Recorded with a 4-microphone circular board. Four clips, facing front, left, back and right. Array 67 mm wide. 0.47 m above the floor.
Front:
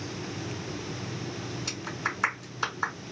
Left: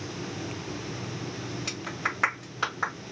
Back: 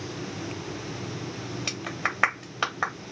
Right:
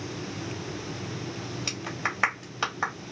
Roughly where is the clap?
Behind.